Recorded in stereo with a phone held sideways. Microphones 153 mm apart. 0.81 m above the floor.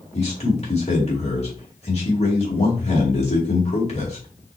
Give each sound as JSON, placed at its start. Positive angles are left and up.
{"t": 0.1, "sound": "a man speaking", "side_deg": 40, "distance_m": 2.5}